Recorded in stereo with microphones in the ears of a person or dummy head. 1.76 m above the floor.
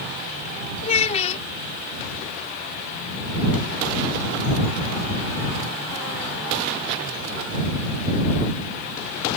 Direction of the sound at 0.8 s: 35° left (ahead or behind).